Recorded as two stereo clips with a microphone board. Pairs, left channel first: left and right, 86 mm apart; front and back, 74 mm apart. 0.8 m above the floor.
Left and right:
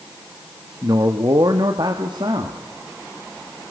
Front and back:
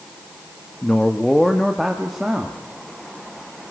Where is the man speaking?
70° right, 1.6 m; by 2.6 s 100° right, 2 m.